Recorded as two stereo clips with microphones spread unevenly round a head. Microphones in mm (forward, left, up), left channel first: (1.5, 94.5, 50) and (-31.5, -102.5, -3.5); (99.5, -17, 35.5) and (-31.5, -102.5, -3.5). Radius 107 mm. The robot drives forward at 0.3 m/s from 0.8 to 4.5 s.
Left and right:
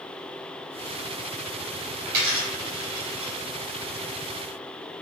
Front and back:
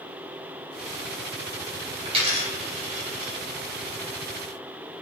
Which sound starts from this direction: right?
A dropped coin, at 2.0 s.